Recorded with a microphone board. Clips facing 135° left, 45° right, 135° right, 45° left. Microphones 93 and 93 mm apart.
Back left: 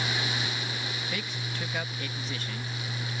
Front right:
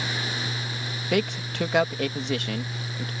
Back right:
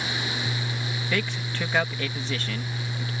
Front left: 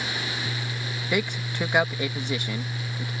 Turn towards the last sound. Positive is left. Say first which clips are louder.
# front right 10 dB, front left 3 dB
turn(degrees=-30)